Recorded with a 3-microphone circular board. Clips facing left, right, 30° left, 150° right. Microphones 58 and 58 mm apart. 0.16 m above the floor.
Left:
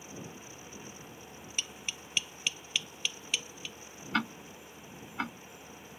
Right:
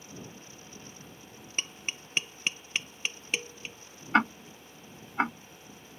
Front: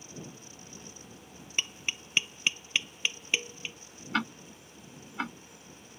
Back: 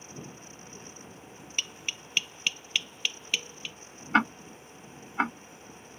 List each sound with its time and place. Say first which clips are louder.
1.6 s tapping: right 4 dB, front 2 dB; 40° right
4.1 s ticking: right 7 dB, back 7 dB; 115° right